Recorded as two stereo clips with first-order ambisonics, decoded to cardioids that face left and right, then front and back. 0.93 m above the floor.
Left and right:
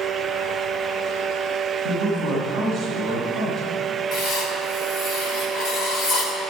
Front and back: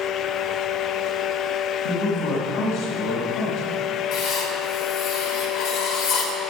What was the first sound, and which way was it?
A man speaking, 5° left.